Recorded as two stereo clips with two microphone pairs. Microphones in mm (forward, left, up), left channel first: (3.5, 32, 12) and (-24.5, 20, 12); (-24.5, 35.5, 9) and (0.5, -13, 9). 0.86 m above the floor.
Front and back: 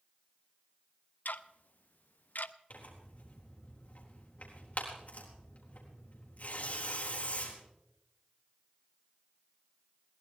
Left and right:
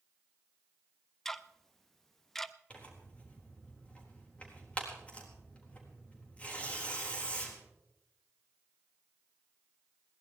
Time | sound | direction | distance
1.2 | ticking | 35° left | 0.6 m
2.7 | tearing paper | 55° left | 4 m